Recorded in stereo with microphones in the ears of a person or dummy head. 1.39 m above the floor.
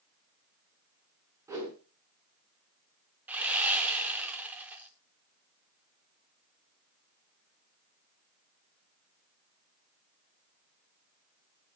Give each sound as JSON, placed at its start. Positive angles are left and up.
{"t": 1.5, "sound": "a whoosh", "side_deg": -15, "distance_m": 6.5}
{"t": 3.3, "sound": "sawing", "side_deg": -10, "distance_m": 2.0}